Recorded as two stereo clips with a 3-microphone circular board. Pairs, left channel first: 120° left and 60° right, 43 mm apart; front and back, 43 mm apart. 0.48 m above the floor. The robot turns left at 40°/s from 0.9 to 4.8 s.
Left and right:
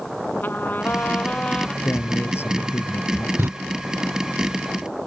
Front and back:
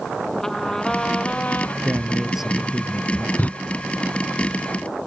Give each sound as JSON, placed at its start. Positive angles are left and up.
{"t": 0.4, "sound": "a trumpet", "azimuth_deg": 75}
{"t": 1.8, "sound": "a man speaking", "azimuth_deg": 120}
{"t": 3.4, "sound": "a door slam", "azimuth_deg": -45}